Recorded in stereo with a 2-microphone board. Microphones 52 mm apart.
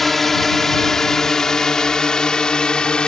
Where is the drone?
5° left (ahead or behind); by 3.1 s 15° left (ahead or behind).